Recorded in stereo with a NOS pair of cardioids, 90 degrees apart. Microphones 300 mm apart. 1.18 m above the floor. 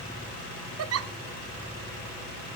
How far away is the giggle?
About 0.9 m.